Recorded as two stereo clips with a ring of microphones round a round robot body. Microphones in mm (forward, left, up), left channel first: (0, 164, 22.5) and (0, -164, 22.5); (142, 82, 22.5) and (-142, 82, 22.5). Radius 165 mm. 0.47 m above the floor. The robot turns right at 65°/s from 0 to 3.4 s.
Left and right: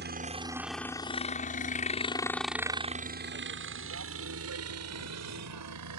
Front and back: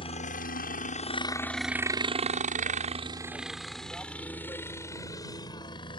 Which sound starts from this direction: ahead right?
A helicopter, at 0.0 s.